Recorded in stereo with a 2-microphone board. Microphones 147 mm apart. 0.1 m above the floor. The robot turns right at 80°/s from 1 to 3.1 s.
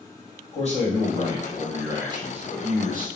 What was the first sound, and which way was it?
A man speaking, 125° left.